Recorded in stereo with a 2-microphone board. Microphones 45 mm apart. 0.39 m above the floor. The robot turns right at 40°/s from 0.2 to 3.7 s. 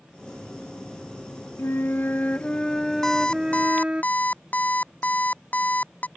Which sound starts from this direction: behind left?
A flute, at 1.6 s.